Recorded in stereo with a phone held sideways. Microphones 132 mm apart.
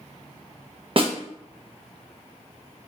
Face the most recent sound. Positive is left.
turn(degrees=-45)  # may be behind; listen again after turning